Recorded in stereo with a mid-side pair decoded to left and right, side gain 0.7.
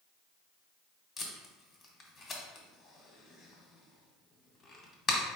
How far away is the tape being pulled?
About 1.2 m.